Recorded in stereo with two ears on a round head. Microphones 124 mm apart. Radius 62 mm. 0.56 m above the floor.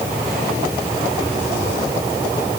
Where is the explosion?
No explosion in this recording.